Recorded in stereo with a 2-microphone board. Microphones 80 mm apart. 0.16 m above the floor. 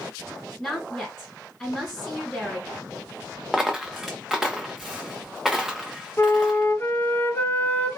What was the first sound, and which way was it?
A woman speaking, 10° left (ahead or behind).